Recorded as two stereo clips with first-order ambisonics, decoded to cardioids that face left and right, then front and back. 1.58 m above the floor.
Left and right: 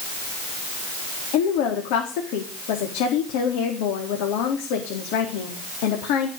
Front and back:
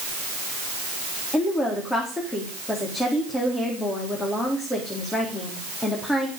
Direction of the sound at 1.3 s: 80° left.